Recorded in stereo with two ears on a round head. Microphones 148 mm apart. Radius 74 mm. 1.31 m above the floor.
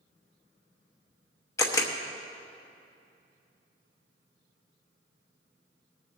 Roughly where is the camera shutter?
Centre.